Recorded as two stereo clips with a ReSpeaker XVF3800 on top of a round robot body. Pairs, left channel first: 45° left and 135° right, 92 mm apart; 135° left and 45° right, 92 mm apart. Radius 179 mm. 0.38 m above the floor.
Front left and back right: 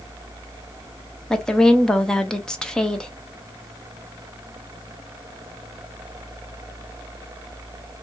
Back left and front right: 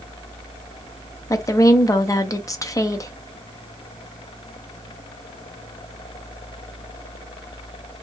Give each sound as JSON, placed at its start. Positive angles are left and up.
{"t": 1.3, "sound": "a woman speaking", "azimuth_deg": 125, "distance_m": 0.8}